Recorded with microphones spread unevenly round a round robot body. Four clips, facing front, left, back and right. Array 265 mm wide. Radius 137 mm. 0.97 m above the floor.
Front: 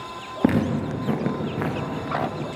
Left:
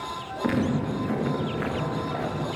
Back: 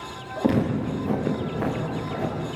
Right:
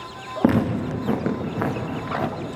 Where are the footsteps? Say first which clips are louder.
Right 5 dB, front 1 dB; 45° right, 6.5 m; by 2.3 s 50° right, 7.5 m.